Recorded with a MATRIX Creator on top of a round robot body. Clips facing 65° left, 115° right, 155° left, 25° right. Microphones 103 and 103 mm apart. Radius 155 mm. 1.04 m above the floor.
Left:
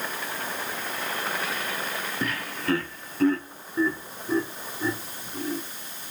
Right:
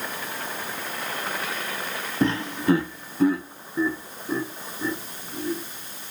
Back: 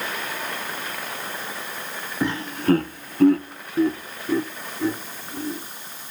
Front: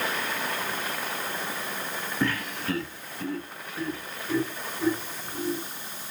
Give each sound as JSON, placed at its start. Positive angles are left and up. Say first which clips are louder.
{"t": 2.2, "sound": "laughter", "louder": "right 9 dB, back 7 dB", "azimuth_deg": -140, "distance_m": 0.6}